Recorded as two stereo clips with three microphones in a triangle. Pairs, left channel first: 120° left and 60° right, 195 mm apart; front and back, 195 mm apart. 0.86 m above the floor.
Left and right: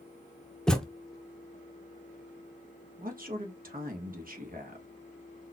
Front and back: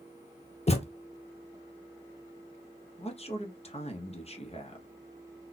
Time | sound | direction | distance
0.7 | a thud | 35° left | 0.5 m
3.0 | a man speaking | 45° right | 0.8 m